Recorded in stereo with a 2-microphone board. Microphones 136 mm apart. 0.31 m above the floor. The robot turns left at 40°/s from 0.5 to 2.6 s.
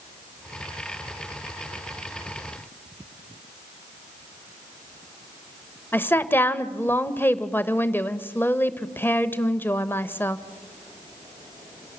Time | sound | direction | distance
5.9 | a woman speaking | 15° left (ahead or behind) | 0.9 m